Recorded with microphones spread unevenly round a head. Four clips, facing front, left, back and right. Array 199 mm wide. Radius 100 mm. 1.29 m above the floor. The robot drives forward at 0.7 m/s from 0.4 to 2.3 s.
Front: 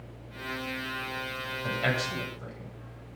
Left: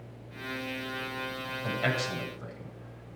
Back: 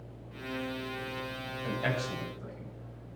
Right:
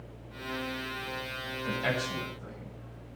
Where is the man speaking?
40° left, 8.5 m; by 3.1 s 45° left, 8.5 m.